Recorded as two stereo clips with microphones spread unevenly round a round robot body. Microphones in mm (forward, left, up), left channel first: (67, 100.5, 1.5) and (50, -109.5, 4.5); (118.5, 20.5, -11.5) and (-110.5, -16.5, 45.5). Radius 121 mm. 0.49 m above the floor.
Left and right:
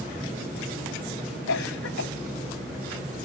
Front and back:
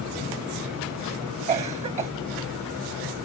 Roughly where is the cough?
Behind left.